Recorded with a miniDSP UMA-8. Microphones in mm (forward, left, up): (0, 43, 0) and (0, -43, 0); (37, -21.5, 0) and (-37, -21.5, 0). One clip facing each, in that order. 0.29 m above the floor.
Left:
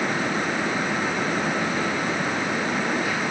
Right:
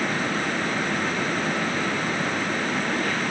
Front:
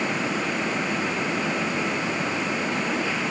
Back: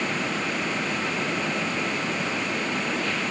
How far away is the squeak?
I don't hear a squeak.